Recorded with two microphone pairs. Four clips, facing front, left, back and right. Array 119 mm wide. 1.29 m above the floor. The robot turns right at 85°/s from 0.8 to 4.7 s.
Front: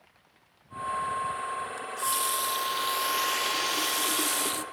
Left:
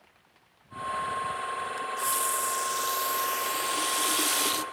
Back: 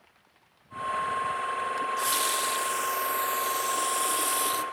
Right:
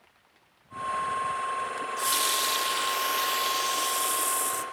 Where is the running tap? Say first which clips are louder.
Right 1 dB, back 3 dB; 165° right, 0.6 m; by 4.7 s 80° left, 0.6 m.